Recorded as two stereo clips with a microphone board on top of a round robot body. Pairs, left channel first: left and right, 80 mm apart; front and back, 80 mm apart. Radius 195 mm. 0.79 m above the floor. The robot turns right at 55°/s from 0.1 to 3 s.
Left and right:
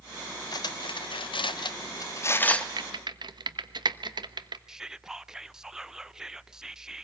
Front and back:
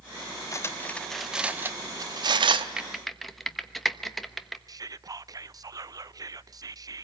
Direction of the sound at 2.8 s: 100° right.